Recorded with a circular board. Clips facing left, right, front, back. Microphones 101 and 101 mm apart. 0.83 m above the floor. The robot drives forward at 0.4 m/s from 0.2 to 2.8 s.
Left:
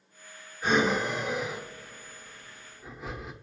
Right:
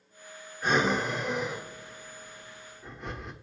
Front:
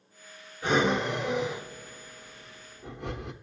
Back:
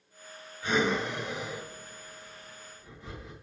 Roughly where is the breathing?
Ahead.